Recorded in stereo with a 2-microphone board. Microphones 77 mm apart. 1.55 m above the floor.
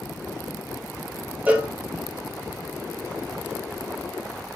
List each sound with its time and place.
1.5 s a cowbell: 20° right (ahead or behind), 0.8 m